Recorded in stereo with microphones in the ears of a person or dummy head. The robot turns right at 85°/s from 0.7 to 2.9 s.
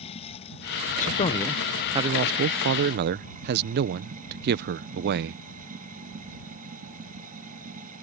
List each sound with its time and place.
0.0 s running water: 35° left; by 8.0 s 140° right
1.0 s a man speaking: 125° left; by 5.4 s 70° right